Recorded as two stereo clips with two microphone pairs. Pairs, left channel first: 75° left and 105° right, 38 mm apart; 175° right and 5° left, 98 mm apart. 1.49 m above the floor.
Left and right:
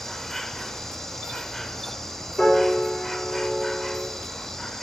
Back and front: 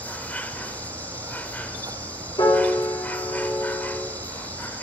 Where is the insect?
150° left, 0.9 m.